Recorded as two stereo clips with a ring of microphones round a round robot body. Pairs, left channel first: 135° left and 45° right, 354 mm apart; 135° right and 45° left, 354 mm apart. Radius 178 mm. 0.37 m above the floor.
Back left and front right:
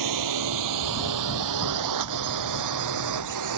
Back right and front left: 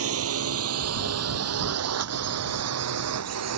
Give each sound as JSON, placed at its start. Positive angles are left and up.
{"t": 0.0, "sound": "a drone", "azimuth_deg": -10}